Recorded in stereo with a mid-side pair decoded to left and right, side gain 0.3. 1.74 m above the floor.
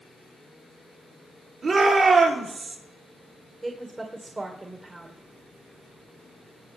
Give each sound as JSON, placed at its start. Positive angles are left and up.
{"t": 1.6, "sound": "a shout", "azimuth_deg": -70, "distance_m": 6.0}
{"t": 3.6, "sound": "a woman speaking", "azimuth_deg": -35, "distance_m": 2.0}